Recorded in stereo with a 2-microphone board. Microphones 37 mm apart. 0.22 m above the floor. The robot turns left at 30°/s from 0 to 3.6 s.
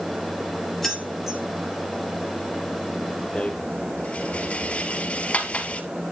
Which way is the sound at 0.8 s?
10° left (ahead or behind).